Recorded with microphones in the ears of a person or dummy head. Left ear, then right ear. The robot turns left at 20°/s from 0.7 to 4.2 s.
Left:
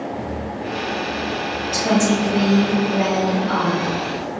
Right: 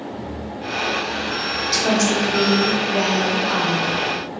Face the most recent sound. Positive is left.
turn(degrees=-95)